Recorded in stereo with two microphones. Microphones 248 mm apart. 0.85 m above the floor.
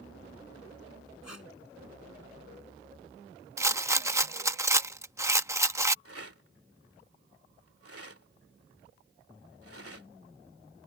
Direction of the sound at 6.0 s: 65° right (ahead or behind).